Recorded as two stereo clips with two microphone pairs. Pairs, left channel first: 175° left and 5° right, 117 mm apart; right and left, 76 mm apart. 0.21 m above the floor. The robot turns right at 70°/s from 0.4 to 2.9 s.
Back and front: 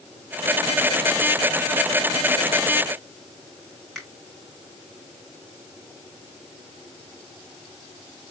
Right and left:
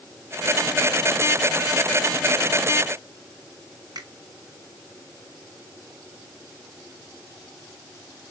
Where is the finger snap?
90° left, 2.5 m.